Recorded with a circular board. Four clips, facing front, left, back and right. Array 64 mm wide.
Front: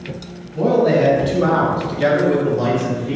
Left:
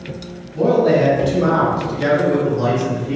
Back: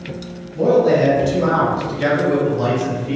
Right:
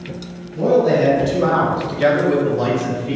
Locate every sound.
0.6 s a man speaking: 55° left, 1.5 m; by 3.1 s 90° right, 2 m